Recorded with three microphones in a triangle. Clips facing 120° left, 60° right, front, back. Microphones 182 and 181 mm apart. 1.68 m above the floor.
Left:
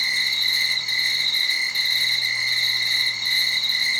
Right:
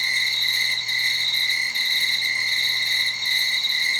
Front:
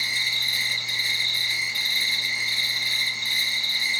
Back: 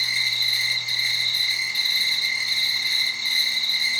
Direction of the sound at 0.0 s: 5° left.